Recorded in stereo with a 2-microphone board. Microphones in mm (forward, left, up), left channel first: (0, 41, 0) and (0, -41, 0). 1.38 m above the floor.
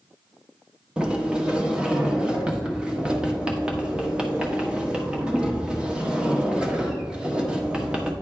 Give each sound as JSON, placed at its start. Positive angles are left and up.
{"t": 1.0, "sound": "a sliding door", "side_deg": -10, "distance_m": 1.3}